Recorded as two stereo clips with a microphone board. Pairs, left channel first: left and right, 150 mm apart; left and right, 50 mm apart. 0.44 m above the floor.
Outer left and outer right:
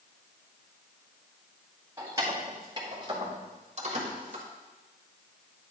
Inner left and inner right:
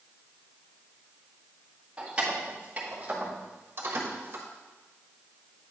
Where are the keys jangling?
20° right (ahead or behind), 2 m; by 4.5 s 55° right (ahead or behind), 1.4 m.